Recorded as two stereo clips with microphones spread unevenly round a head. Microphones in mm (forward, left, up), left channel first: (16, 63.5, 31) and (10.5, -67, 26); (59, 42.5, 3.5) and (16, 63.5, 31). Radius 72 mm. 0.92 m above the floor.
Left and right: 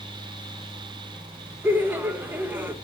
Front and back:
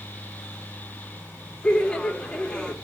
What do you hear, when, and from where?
1.6 s laughter: 25° right, 1.3 m